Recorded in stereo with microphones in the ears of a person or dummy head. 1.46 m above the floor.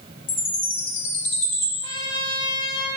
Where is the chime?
35° left (ahead or behind), 1.9 m.